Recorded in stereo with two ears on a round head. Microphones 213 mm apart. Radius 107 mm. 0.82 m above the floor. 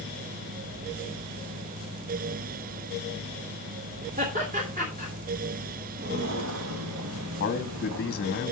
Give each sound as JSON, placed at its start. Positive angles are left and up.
{"t": 4.2, "sound": "laughter", "side_deg": -40, "distance_m": 3.0}
{"t": 6.0, "sound": "footsteps", "side_deg": -40, "distance_m": 1.0}
{"t": 7.4, "sound": "a man speaking", "side_deg": 45, "distance_m": 1.5}